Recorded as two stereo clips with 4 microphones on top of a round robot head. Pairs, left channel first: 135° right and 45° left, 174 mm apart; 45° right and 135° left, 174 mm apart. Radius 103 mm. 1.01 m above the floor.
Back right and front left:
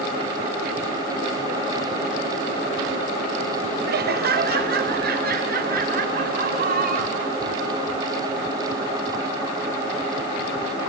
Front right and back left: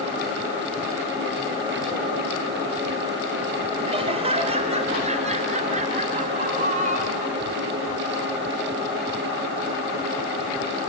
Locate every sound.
3.9 s laughter: 75° left, 3 m; by 7.4 s 85° left, 5.5 m